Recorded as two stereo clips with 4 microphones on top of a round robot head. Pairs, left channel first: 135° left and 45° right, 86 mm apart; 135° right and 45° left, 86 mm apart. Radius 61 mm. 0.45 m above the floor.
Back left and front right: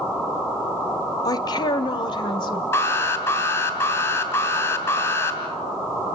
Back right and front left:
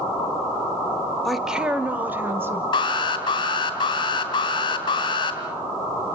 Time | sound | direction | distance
1.2 | a woman speaking | 140° left | 1.2 m
2.7 | an alarm | 165° right | 3 m